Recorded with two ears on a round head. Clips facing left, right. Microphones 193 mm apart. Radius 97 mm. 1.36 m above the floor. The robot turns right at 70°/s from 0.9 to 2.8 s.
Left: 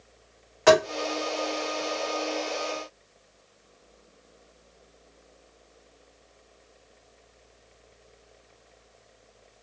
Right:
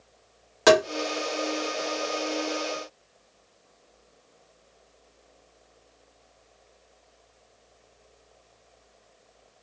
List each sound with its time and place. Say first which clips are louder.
0.7 s tapping: even; 55° right (ahead or behind), 1.5 m